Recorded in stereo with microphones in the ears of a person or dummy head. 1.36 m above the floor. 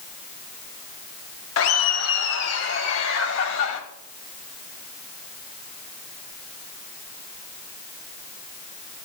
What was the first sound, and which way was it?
Laughter, 70° left (ahead or behind).